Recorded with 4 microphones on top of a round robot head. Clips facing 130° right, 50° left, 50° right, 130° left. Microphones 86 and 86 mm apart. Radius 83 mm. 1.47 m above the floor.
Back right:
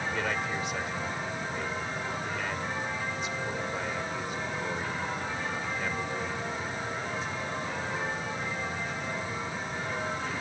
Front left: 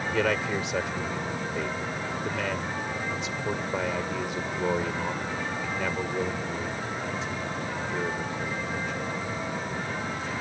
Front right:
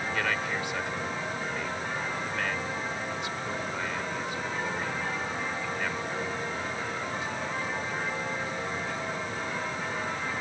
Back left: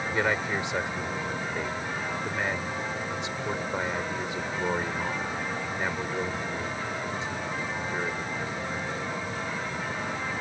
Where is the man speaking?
60° left.